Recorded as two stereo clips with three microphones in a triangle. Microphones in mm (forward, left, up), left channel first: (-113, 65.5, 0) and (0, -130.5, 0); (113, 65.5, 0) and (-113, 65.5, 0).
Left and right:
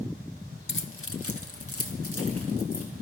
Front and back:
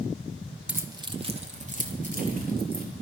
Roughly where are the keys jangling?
Left.